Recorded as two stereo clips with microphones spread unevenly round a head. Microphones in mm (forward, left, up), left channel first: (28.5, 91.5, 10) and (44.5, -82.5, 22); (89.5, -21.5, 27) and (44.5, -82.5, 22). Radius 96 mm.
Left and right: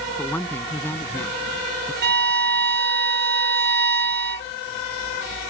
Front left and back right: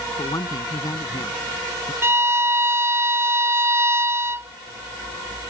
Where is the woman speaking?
15° left; by 1.9 s 20° left.